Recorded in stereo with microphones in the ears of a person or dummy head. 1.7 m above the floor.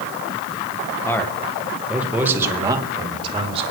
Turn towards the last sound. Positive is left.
turn(degrees=-30)  # may be behind; listen again after turning